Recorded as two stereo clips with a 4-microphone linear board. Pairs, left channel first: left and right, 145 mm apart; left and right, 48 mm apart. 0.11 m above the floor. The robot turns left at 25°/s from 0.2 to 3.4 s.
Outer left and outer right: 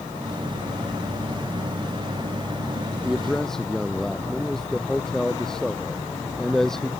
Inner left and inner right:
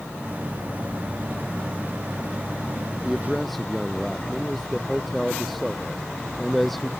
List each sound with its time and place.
3.0 s a man speaking: 5° right (ahead or behind); by 6.9 s 5° left (ahead or behind)